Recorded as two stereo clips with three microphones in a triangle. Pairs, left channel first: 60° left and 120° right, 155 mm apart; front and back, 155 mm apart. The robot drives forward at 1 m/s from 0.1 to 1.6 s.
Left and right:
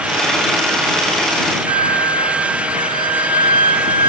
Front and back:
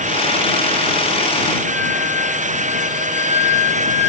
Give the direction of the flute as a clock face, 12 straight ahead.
2 o'clock.